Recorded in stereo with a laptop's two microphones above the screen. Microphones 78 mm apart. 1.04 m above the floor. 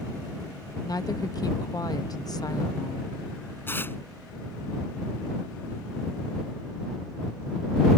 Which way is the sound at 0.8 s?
55° left (ahead or behind).